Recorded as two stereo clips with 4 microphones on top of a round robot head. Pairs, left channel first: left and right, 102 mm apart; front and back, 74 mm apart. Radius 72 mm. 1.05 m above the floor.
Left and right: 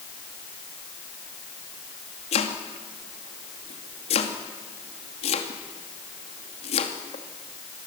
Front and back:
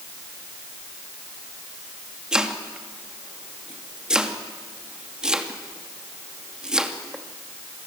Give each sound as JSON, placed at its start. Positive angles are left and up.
{"t": 2.3, "sound": "chopping", "azimuth_deg": 100, "distance_m": 2.5}